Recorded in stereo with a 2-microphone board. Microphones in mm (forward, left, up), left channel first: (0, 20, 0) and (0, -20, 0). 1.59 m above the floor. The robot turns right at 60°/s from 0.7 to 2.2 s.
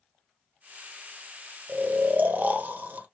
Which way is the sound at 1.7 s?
90° right.